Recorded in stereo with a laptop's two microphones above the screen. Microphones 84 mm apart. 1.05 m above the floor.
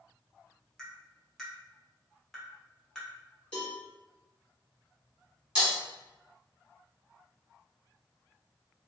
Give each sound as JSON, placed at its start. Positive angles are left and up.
{"t": 0.8, "sound": "tapping", "side_deg": 5, "distance_m": 0.8}
{"t": 3.5, "sound": "a cowbell", "side_deg": 15, "distance_m": 1.1}
{"t": 5.5, "sound": "breaking glass", "side_deg": -10, "distance_m": 1.6}